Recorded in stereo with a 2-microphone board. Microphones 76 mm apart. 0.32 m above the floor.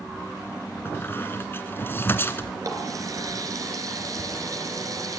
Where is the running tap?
50° right (ahead or behind), 3.5 m.